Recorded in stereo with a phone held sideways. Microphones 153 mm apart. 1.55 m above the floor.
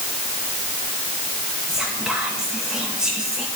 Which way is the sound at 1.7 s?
5° right (ahead or behind).